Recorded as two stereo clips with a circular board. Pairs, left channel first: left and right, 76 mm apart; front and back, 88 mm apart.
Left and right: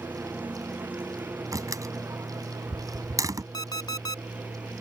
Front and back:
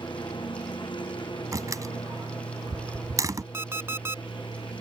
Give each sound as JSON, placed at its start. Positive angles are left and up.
{"t": 0.0, "sound": "a lawn mower", "azimuth_deg": -25}
{"t": 1.5, "sound": "a door slam", "azimuth_deg": -130}
{"t": 3.5, "sound": "an alarm clock", "azimuth_deg": 120}